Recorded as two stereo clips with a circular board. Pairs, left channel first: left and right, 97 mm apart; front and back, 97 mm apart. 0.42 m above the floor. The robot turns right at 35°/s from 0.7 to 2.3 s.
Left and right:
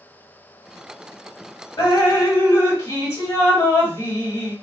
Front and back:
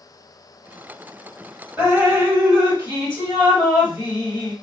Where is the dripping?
110° left, 1.7 m; by 4.5 s 130° left, 1.7 m.